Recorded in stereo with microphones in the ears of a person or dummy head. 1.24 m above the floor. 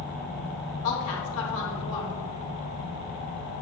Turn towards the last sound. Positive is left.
turn(degrees=65)  # may be behind; listen again after turning